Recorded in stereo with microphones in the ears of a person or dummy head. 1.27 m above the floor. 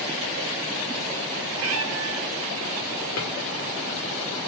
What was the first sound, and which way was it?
A cat meowing, 65° right (ahead or behind).